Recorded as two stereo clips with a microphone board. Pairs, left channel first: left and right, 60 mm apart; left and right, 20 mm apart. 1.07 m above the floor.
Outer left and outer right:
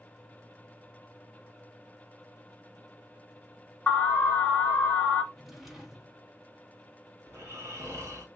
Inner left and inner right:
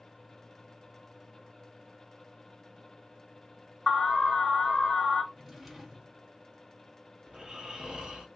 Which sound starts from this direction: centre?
A drawer, at 5.3 s.